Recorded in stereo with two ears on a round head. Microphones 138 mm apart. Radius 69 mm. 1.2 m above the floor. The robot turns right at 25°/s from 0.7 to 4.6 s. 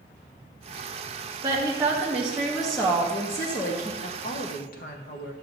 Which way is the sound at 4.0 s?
45° left (ahead or behind).